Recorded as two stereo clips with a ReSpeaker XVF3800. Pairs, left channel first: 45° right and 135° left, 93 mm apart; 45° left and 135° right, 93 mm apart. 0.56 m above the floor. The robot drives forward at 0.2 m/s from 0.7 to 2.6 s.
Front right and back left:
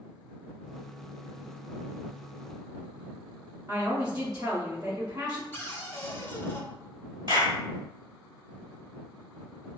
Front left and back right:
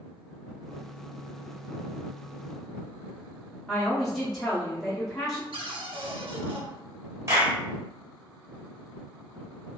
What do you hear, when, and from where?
3.7 s a woman speaking: 135° left, 0.9 m
5.5 s a cupboard door: 110° right, 0.5 m
7.3 s a clap: 170° left, 2.0 m